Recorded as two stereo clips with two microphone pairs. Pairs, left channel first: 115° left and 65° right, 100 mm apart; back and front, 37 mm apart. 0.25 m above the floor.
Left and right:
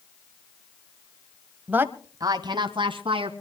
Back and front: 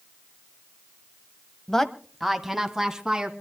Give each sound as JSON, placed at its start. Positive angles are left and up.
{"t": 1.7, "sound": "a woman speaking", "azimuth_deg": -120, "distance_m": 1.2}